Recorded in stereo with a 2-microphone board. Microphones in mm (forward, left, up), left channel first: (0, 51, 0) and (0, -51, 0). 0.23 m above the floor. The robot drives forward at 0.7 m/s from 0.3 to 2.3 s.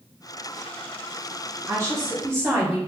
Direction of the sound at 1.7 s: 30° right (ahead or behind).